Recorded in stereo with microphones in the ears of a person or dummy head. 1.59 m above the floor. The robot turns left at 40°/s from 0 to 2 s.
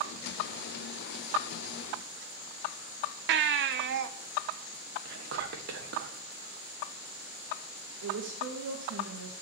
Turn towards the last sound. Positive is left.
turn(degrees=-80)